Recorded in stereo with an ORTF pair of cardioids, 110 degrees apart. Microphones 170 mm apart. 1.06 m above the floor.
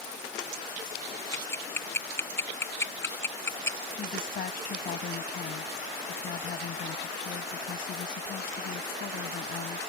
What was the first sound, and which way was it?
Ticking, 15° left.